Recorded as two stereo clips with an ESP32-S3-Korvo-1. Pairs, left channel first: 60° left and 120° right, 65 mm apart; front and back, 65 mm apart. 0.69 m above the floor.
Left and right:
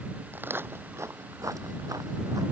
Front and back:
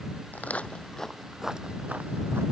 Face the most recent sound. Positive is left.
turn(degrees=-135)